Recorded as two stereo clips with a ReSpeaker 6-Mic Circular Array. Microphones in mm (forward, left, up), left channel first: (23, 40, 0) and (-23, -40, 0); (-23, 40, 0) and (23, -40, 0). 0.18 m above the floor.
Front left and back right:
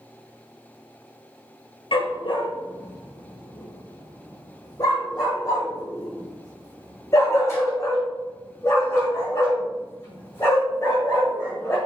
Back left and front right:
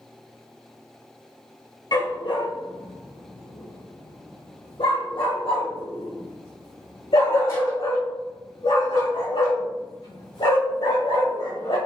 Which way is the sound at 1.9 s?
80° left.